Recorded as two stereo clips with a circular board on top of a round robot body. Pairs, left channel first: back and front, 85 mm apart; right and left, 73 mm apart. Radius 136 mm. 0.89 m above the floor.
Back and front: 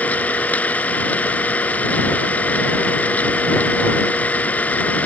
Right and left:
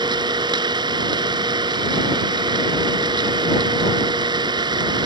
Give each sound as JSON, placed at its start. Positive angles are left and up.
{"t": 0.0, "sound": "an engine running", "azimuth_deg": 105}